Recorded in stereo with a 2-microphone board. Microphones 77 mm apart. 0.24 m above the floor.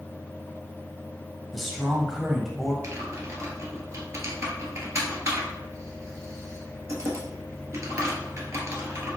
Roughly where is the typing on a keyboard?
Right.